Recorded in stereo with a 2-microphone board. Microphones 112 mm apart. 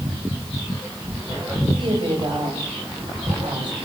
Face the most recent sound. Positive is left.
turn(degrees=-45)  # may be behind; listen again after turning